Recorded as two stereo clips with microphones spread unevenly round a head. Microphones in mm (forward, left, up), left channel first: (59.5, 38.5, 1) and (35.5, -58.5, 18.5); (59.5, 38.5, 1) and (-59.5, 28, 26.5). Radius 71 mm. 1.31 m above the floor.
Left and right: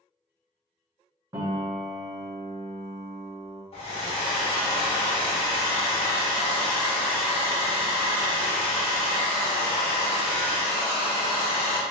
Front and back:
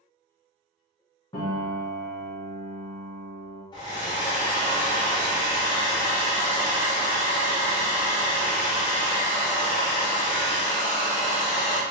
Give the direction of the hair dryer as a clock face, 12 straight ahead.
10 o'clock.